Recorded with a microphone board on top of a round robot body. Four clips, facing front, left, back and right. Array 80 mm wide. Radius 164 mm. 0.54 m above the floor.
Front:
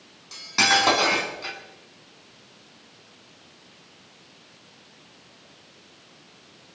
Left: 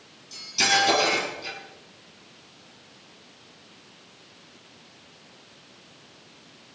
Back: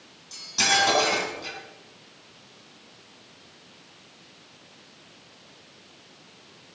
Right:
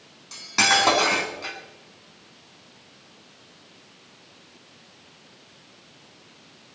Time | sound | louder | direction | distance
0.3 | cutlery clinking | right 3 dB, front 3 dB | 55° right | 4 m